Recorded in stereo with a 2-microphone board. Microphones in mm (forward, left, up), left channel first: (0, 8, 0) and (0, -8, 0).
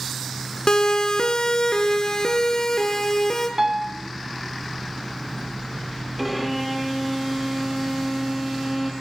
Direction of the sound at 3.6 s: 25° right (ahead or behind).